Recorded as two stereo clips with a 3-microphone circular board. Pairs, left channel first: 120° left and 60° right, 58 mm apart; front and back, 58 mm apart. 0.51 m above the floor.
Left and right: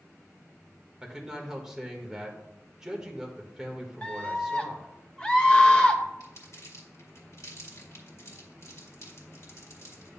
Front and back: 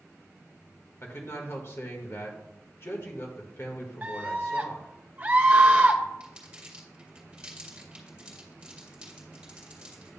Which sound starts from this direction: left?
Crumpling, at 6.2 s.